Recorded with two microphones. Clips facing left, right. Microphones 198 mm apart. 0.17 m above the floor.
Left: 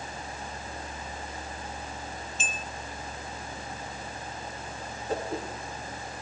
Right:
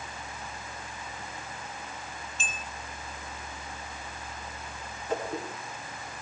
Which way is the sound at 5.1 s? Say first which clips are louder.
Even; 40° left (ahead or behind).